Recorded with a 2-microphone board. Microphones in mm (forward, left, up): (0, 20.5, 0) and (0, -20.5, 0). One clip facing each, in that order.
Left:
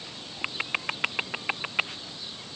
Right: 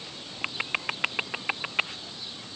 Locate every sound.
Only background noise.